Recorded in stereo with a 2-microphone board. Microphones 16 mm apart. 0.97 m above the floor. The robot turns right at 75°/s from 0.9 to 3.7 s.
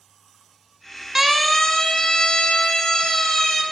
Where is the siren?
20° right (ahead or behind), 4.5 m; by 3.6 s 20° left (ahead or behind), 7 m.